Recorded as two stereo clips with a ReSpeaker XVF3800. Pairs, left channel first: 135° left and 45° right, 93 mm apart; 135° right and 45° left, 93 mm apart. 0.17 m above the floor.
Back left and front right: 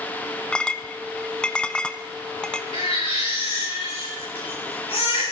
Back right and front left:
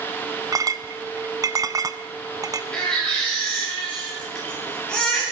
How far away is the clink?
About 0.8 m.